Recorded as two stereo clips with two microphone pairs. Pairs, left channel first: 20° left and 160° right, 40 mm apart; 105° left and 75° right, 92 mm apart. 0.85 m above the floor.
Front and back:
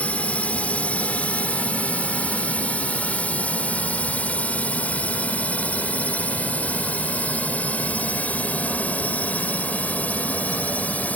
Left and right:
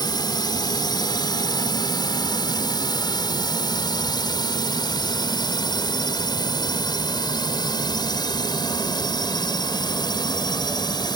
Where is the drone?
70° left; by 11.2 s 65° left.